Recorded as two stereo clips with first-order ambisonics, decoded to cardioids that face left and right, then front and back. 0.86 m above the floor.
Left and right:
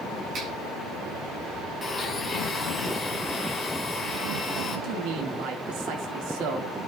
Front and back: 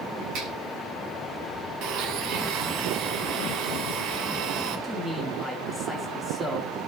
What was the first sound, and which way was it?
A finger snap, 145° right.